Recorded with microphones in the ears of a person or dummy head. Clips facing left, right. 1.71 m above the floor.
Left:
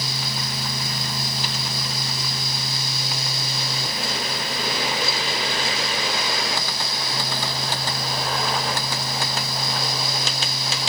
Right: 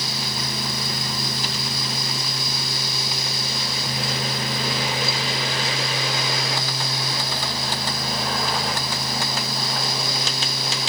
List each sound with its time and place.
Only background noise.